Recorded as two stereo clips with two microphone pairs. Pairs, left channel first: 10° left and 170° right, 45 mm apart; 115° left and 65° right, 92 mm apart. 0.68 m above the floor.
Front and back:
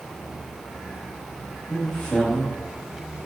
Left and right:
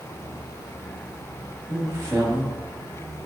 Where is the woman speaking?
55° right, 1.0 m.